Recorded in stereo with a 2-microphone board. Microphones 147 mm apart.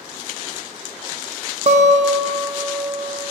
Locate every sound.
1.7 s a guitar: 50° right (ahead or behind), 0.5 m